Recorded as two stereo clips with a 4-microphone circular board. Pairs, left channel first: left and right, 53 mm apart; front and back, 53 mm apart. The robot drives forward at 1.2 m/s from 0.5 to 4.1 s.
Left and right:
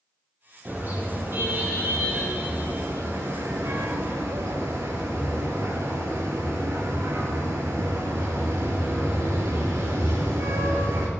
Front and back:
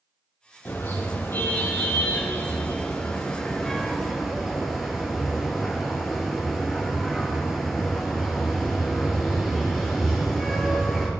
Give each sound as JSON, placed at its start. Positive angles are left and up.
{"t": 0.7, "sound": "a car horn", "azimuth_deg": -40, "distance_m": 5.0}